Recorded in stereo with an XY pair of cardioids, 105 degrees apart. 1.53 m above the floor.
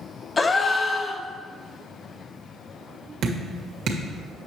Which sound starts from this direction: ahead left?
A gasp, at 0.4 s.